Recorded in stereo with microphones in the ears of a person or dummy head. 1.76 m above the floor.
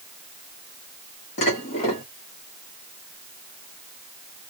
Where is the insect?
No insect in this recording.